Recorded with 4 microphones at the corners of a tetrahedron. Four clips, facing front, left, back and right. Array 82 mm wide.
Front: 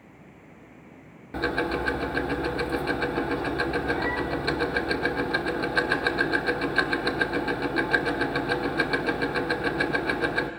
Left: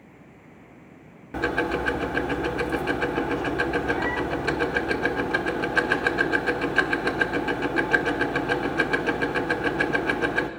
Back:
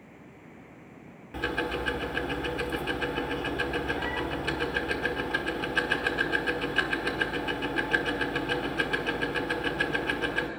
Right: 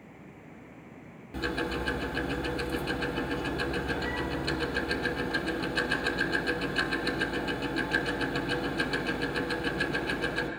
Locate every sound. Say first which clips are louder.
1.3 s ticking: left 7 dB, front 4 dB; 60° left, 1.2 m